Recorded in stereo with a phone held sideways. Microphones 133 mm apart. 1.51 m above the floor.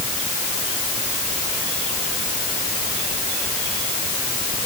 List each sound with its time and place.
Only background noise.